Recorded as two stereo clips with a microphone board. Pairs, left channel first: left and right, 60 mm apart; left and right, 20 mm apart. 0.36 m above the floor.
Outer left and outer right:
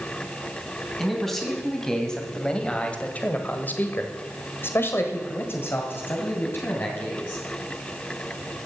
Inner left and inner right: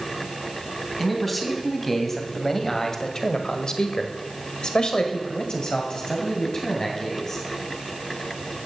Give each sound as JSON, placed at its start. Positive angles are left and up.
{"t": 1.0, "sound": "a man speaking", "side_deg": 5, "distance_m": 3.0}